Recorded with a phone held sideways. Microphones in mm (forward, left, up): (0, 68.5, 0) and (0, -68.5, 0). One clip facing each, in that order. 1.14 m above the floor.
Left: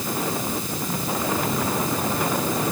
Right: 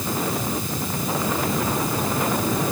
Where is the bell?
No bell in this recording.